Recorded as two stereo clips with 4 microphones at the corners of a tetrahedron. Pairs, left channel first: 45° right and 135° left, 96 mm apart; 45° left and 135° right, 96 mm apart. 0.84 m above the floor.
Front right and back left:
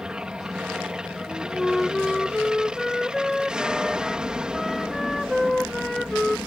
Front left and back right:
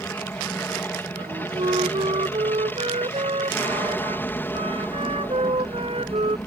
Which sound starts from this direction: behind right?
A flute, at 1.1 s.